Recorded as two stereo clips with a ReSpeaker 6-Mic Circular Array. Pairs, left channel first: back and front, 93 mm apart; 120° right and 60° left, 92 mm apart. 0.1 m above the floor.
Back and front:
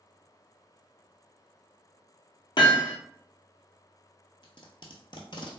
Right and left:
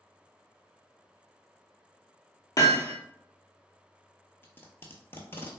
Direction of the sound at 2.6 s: 160° right.